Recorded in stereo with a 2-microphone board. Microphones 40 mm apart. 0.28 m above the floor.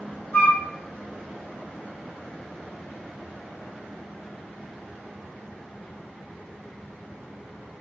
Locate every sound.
0.3 s a flute: 55° left (ahead or behind), 1.5 m